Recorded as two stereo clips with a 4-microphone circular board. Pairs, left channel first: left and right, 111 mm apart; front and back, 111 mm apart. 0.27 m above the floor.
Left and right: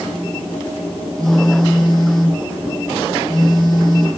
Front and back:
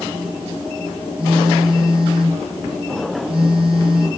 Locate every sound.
1.2 s a phone buzzing: 145° right, 2.5 m